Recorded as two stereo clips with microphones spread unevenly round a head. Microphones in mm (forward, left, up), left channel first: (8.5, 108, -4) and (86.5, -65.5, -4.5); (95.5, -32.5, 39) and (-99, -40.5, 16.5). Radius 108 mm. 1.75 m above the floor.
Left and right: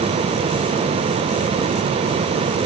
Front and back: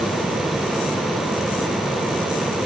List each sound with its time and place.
Only background noise.